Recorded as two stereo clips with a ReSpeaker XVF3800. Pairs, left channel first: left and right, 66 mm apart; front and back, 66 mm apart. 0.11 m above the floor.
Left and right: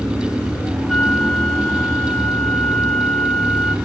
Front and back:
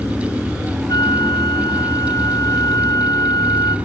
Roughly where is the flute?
Ahead.